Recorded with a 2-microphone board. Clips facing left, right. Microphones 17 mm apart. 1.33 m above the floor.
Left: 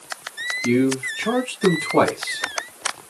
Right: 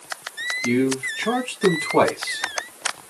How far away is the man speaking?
About 1.6 m.